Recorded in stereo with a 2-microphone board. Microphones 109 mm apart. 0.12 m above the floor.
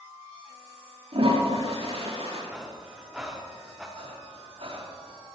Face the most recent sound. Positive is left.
turn(degrees=-70)  # may be behind; listen again after turning